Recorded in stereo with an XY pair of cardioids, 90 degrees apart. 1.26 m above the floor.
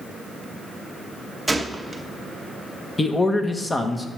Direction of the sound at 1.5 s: 15° right.